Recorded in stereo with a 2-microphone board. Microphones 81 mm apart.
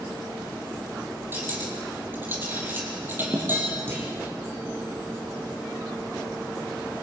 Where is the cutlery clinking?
25° right (ahead or behind), 5.5 m.